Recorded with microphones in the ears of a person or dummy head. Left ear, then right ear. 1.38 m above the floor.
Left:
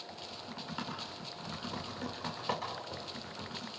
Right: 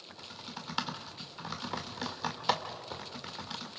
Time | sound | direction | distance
0.1 | typing on a keyboard | 50° right (ahead or behind) | 1.8 m